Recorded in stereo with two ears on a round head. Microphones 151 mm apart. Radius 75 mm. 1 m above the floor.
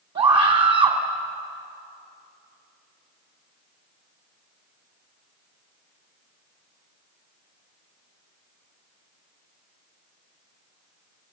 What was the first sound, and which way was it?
A scream, 30° right (ahead or behind).